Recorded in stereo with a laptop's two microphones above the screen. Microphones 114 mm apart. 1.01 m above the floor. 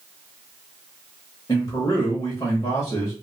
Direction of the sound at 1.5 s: 45° left (ahead or behind).